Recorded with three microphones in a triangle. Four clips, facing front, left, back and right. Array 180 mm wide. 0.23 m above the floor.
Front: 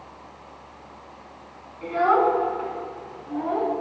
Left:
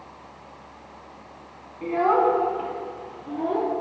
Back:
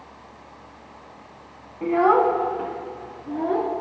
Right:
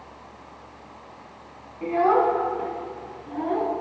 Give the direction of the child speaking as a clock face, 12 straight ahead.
6 o'clock.